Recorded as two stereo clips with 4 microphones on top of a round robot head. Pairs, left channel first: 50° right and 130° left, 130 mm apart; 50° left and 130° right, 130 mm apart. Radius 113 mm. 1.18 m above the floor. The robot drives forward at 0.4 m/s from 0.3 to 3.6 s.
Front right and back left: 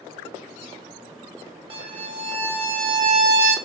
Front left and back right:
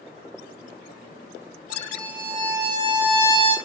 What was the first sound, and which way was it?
A violin, 175° left.